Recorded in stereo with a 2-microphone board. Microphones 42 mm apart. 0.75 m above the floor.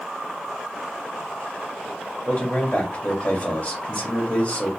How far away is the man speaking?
About 1.5 m.